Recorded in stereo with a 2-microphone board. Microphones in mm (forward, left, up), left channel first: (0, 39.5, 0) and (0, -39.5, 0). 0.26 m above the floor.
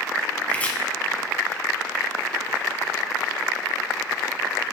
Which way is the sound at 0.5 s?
20° left (ahead or behind).